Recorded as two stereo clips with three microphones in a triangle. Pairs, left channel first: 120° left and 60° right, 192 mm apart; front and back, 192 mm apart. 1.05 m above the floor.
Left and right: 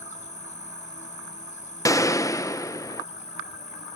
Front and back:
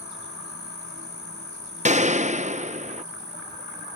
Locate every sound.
0.0 s an insect: 170° left
1.9 s a gunshot: 175° right